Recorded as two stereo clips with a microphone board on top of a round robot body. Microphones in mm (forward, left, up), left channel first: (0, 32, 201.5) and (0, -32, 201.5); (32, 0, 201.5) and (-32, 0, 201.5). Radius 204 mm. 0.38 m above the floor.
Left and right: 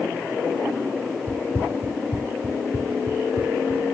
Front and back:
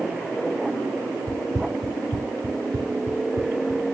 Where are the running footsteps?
150° left; by 4.0 s 135° left.